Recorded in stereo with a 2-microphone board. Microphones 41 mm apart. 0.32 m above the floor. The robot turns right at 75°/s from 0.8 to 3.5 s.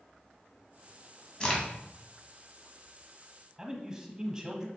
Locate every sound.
1.4 s a crack: 20° left (ahead or behind), 2.0 m; by 1.6 s 10° left (ahead or behind), 2.0 m
3.6 s a man speaking: 20° right (ahead or behind), 1.2 m